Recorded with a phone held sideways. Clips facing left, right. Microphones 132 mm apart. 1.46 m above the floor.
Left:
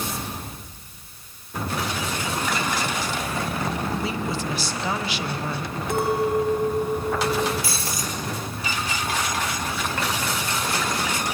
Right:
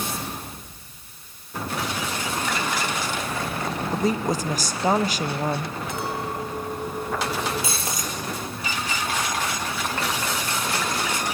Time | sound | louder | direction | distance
3.9 | a woman speaking | right 4 dB | 45° right (ahead or behind) | 1.0 m
5.9 | a clink | left 10 dB | 65° left (ahead or behind) | 4 m
7.6 | breaking glass | even | 25° right (ahead or behind) | 3.5 m